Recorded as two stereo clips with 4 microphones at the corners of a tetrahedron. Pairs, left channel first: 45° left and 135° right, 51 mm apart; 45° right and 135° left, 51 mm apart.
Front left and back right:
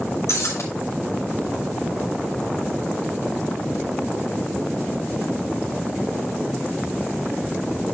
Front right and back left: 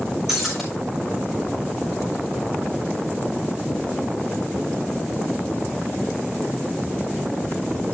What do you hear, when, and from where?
0.3 s breaking glass: 50° left, 4 m